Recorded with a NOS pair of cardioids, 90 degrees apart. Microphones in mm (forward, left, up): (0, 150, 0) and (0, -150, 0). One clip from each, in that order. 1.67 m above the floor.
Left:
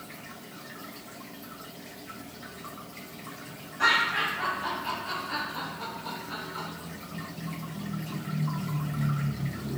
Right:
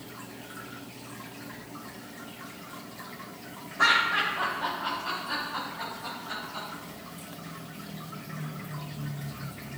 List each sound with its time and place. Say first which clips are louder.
3.8 s laughter: right 1 dB; 50° right, 1.7 m; by 6.7 s 80° right, 3 m